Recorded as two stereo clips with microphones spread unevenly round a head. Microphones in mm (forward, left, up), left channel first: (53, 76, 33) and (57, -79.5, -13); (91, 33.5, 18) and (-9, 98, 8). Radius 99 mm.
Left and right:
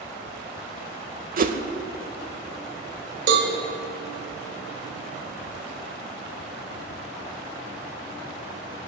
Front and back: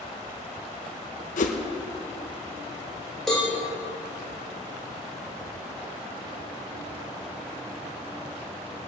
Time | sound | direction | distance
1.4 | a whoosh | 50° right | 1.2 m
3.3 | a cowbell | 120° right | 2.5 m